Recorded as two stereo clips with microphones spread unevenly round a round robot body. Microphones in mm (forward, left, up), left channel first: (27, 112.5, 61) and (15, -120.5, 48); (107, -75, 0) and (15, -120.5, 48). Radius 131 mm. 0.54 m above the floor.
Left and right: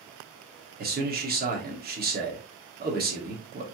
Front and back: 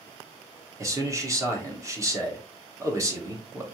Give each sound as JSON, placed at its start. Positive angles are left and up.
{"t": 0.8, "sound": "a man speaking", "azimuth_deg": -75, "distance_m": 1.7}